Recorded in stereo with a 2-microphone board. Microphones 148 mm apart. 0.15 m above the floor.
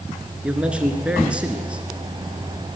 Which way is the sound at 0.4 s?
5° right (ahead or behind).